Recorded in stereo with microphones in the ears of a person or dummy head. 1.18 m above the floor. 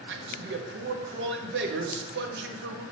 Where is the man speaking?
55° right (ahead or behind), 0.5 m.